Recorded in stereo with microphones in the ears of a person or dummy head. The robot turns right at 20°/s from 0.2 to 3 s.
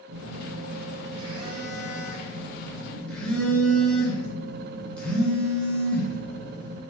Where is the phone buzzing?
50° right, 0.6 m; by 6.8 s 5° left, 0.6 m.